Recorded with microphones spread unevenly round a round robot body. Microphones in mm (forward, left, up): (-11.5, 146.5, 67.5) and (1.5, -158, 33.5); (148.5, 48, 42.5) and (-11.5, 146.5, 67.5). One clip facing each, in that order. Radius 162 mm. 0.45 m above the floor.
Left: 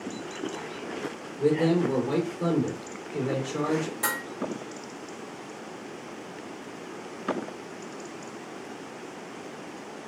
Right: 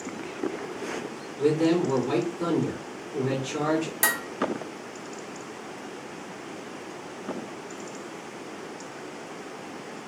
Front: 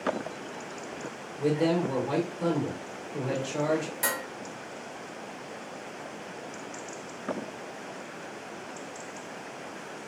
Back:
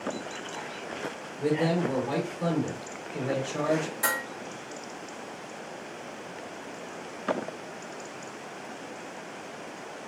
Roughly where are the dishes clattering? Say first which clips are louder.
Right 1 dB, even; right.